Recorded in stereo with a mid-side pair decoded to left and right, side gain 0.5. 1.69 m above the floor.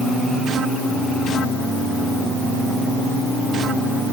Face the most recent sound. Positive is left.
No sound to turn to.